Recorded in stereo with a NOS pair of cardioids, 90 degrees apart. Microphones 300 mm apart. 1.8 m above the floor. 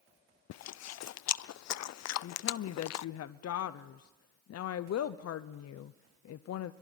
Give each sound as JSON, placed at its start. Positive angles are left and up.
{"t": 0.5, "sound": "chewing", "azimuth_deg": 65, "distance_m": 0.7}
{"t": 2.2, "sound": "a woman speaking", "azimuth_deg": 60, "distance_m": 0.9}